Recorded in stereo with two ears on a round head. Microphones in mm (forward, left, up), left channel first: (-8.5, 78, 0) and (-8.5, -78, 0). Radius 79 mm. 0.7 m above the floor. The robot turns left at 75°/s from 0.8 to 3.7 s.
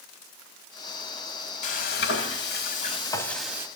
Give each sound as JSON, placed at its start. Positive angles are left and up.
{"t": 1.6, "sound": "frying", "azimuth_deg": 135, "distance_m": 1.2}